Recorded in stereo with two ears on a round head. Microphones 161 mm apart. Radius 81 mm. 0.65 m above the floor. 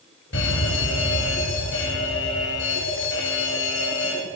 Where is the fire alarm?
75° left (ahead or behind), 5.5 m.